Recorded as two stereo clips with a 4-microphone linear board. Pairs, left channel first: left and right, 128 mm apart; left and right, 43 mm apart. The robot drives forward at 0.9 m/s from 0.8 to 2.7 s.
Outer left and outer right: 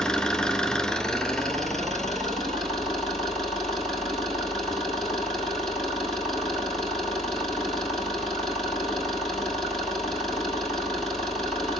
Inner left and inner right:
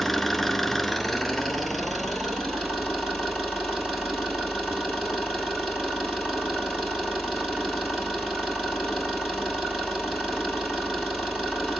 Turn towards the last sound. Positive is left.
turn(degrees=0)  # may be behind; listen again after turning